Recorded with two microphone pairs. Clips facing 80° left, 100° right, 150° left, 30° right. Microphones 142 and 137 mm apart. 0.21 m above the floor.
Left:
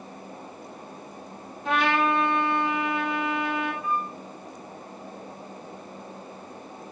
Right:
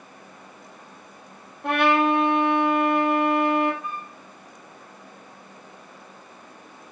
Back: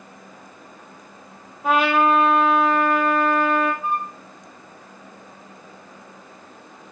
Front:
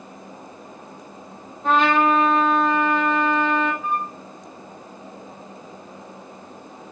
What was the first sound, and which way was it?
A trumpet, 130° right.